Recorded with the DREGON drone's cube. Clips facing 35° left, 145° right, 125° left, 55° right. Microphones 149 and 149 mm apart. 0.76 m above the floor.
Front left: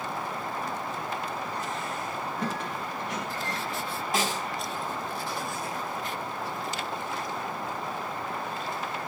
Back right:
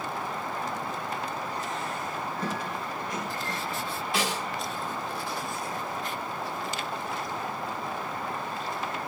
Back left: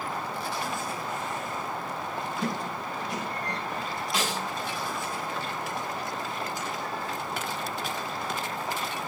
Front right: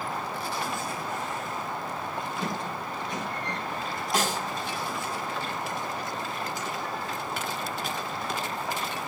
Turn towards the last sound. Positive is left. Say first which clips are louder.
# front left 1 dB, front right 3 dB
turn(degrees=-10)